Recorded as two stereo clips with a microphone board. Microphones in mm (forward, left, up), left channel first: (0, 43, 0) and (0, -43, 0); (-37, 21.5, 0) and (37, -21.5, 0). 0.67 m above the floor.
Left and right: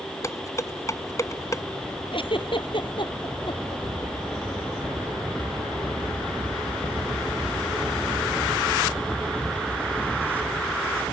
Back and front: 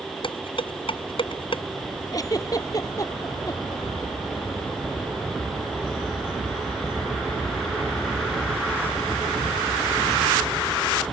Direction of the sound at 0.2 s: 140° left.